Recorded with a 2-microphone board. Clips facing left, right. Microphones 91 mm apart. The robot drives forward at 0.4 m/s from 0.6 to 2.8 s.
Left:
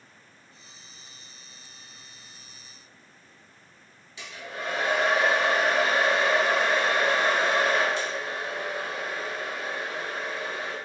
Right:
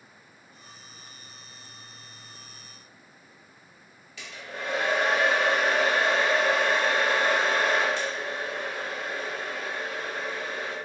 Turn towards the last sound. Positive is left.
turn(degrees=20)  # may be behind; listen again after turning